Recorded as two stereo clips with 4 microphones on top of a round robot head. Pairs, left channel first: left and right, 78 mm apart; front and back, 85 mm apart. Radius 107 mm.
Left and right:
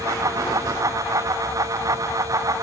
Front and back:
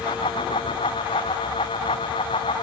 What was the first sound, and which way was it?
Only background noise.